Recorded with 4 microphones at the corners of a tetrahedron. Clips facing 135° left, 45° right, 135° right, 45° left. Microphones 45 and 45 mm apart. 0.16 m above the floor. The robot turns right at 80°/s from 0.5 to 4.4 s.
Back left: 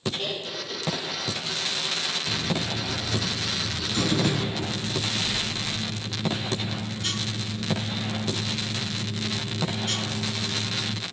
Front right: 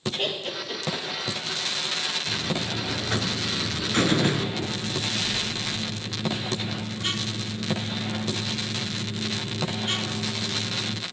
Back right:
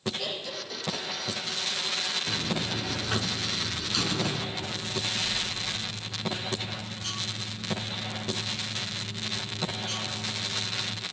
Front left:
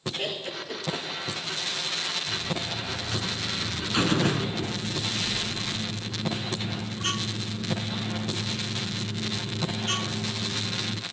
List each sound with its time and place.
0.2 s laughter: straight ahead, 3 m; by 1.1 s 40° left, 3 m
2.3 s a buzzer: 150° right, 0.6 m; by 11.0 s 20° left, 0.6 m